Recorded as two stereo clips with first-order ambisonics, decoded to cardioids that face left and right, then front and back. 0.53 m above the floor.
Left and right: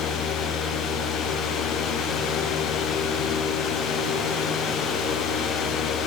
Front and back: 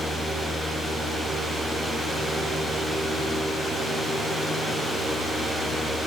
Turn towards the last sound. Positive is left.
No sound to turn to.